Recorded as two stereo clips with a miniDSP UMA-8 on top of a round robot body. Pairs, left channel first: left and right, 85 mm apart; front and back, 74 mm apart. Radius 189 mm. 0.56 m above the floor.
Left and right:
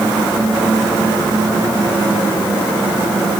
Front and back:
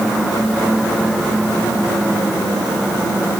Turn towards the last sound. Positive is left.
No sound to turn to.